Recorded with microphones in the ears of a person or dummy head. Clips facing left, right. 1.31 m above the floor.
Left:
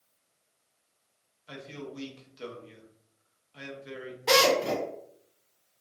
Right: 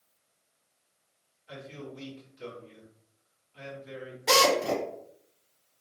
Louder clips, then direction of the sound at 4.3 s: Left 1 dB; centre (ahead or behind).